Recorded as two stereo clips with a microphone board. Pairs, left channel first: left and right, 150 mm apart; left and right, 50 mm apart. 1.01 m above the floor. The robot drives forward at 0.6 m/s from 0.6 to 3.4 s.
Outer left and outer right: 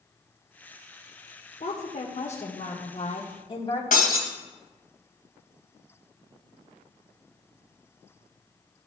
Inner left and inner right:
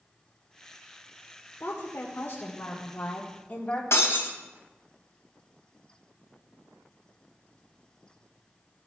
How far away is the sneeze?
I don't hear a sneeze.